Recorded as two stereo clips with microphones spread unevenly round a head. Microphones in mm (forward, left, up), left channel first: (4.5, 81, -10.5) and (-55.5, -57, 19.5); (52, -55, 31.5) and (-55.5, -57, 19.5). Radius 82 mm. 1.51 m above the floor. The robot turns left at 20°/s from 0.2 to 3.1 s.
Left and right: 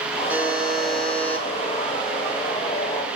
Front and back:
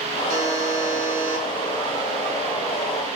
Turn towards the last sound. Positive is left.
turn(degrees=115)